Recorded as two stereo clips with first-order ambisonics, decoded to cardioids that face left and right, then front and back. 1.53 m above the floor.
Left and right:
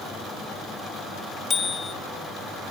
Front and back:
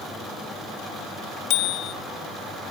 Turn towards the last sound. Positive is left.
turn(degrees=15)